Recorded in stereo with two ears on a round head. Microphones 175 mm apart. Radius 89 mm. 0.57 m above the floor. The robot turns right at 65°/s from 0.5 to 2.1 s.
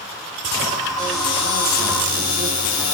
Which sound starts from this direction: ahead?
A cupboard door, at 1.0 s.